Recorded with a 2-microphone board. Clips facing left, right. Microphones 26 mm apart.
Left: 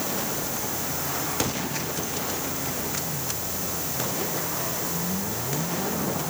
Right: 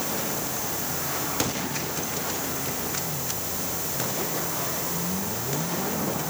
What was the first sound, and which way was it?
Only background noise.